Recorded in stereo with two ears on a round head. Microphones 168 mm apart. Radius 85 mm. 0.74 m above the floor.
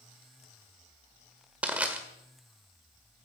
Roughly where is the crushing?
Centre.